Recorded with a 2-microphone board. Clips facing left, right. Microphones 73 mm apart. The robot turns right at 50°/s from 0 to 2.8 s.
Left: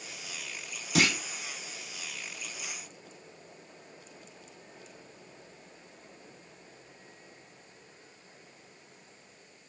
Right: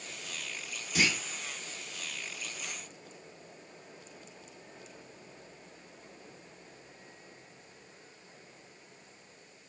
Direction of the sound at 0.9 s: 75° left (ahead or behind).